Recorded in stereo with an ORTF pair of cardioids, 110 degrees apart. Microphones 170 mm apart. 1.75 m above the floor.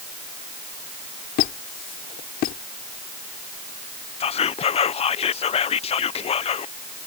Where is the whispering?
35° left.